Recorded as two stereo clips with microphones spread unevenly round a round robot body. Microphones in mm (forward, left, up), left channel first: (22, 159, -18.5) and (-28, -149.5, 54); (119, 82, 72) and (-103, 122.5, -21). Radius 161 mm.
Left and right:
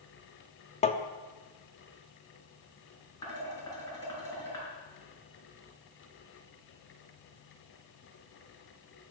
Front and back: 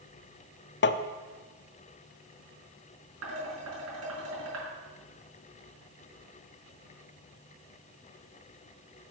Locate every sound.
0.8 s tapping: 40° left, 0.6 m
3.2 s dishes clattering: 160° left, 4.5 m